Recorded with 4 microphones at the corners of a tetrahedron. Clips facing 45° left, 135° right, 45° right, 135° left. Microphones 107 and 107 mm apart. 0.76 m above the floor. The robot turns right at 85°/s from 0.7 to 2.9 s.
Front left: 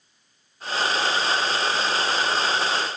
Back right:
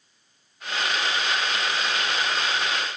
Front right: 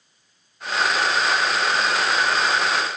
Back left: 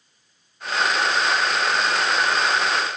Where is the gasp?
No gasp in this recording.